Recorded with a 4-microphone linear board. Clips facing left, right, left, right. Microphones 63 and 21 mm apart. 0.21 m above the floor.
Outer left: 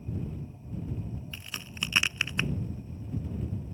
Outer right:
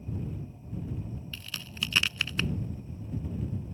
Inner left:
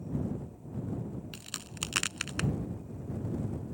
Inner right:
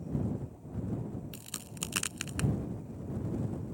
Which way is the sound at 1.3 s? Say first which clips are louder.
Even, inner left 2 dB; 20° left (ahead or behind).